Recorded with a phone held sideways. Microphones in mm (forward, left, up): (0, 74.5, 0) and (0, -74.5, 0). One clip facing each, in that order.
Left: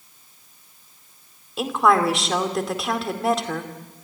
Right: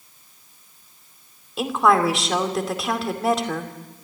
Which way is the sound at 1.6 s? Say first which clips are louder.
Even; centre (ahead or behind).